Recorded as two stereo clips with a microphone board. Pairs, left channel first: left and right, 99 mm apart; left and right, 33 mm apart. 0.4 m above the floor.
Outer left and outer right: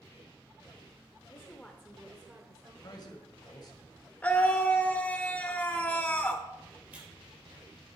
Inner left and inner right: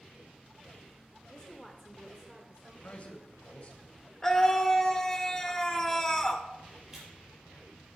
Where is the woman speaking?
30° left (ahead or behind), 1.1 m; by 2.7 s 35° right (ahead or behind), 1.5 m.